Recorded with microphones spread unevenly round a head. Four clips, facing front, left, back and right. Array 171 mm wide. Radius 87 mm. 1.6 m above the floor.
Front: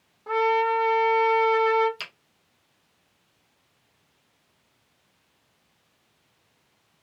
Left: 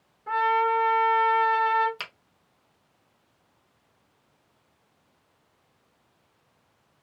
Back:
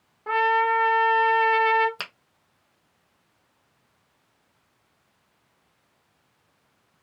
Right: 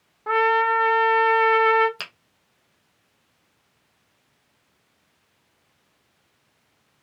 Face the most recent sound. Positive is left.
turn(degrees=-155)